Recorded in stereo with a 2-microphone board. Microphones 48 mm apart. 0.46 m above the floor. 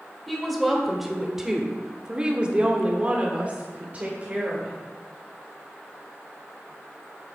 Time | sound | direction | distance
0.3 | a woman speaking | centre (ahead or behind) | 2.5 m